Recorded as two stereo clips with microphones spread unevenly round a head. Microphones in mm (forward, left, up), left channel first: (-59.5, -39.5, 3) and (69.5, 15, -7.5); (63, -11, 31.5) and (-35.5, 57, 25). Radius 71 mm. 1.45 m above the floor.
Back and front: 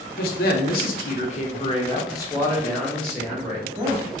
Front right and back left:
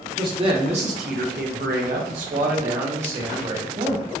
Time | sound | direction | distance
0.2 | a man speaking | 150° right | 1.1 m